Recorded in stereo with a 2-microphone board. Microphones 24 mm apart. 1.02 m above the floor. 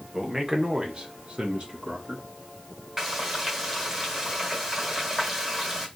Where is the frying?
15° right (ahead or behind), 1.4 m.